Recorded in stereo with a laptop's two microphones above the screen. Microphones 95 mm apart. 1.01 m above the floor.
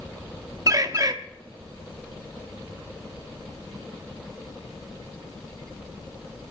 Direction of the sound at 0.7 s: 40° right (ahead or behind).